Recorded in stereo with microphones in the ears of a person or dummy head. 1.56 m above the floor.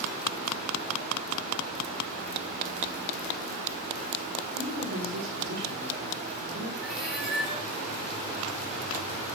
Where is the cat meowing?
Centre (ahead or behind), 5.5 m.